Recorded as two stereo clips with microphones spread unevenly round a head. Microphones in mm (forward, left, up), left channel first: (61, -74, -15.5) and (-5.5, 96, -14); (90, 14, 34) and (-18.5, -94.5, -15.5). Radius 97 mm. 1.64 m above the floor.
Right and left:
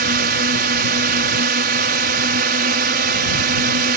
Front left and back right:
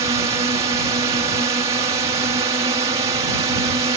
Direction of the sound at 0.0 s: 155° left.